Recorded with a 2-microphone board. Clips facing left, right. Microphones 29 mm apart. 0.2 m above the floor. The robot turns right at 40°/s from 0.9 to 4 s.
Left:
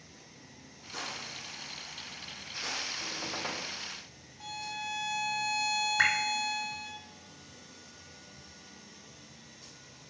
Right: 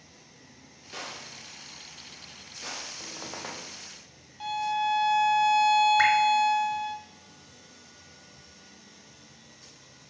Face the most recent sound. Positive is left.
turn(degrees=-10)  # may be behind; listen again after turning